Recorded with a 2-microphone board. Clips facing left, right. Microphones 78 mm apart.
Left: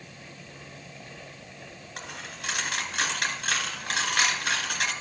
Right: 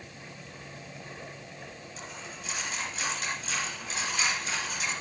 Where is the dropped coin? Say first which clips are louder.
Left 5 dB; 65° left (ahead or behind), 2.5 m.